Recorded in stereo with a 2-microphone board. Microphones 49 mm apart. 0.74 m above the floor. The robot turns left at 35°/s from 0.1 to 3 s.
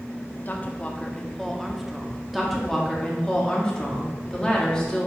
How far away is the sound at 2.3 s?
About 1.4 m.